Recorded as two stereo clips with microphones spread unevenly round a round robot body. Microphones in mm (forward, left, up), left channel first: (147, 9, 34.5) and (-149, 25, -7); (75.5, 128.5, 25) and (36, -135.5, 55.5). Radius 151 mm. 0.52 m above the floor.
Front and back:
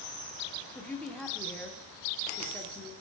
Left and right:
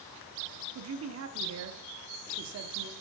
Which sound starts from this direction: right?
A man speaking, at 0.8 s.